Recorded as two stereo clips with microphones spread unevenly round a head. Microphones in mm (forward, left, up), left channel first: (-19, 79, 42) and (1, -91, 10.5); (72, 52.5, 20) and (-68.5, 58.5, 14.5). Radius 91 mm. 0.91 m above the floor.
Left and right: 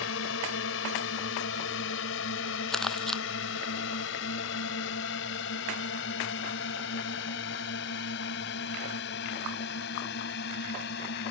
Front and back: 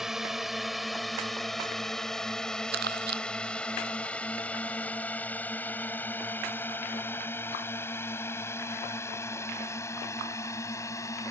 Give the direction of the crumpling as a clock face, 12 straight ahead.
6 o'clock.